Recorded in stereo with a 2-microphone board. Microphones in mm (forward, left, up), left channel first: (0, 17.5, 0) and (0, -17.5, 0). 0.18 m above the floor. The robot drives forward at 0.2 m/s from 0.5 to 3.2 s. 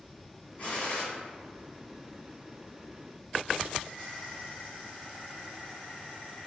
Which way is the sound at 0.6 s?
30° left (ahead or behind).